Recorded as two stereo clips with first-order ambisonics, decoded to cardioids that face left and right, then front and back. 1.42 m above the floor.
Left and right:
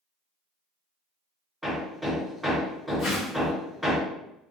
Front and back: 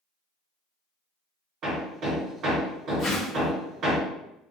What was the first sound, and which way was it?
Hammering, 175° right.